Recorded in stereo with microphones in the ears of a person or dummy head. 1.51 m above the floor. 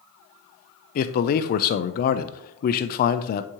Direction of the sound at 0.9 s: 45° left (ahead or behind).